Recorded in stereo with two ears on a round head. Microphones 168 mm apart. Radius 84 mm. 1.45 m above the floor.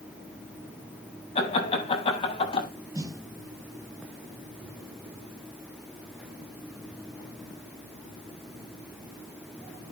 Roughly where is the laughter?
Left.